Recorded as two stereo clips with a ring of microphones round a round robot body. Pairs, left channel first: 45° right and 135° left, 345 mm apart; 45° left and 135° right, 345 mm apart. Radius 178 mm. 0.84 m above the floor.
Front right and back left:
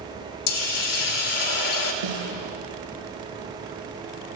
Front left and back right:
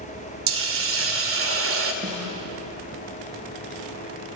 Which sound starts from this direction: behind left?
A snare drum, at 2.0 s.